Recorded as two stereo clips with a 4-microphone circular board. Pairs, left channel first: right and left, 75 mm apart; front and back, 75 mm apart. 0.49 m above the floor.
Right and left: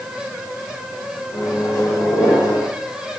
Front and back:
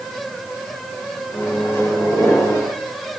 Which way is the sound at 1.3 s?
55° right.